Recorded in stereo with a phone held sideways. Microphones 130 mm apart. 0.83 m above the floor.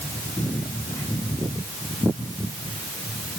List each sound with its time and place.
Only background noise.